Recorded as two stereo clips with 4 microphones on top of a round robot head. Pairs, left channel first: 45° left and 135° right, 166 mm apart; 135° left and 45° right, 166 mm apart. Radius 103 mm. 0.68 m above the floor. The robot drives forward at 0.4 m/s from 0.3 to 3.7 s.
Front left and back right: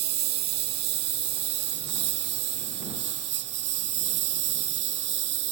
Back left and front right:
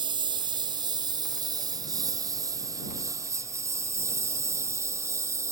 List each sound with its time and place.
0.0 s a lawn mower: 110° right; by 5.5 s 120° right